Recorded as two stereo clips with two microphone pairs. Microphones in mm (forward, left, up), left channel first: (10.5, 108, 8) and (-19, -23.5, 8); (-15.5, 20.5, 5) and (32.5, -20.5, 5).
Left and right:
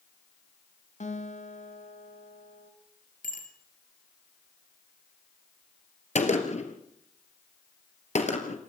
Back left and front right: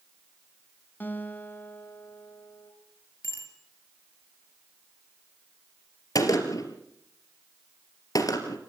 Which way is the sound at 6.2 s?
115° left.